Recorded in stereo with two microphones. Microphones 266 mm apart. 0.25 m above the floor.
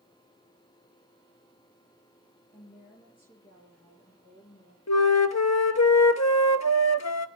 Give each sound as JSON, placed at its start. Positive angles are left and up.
{"t": 2.5, "sound": "a woman speaking", "side_deg": 30, "distance_m": 6.0}
{"t": 4.9, "sound": "a flute", "side_deg": 80, "distance_m": 0.9}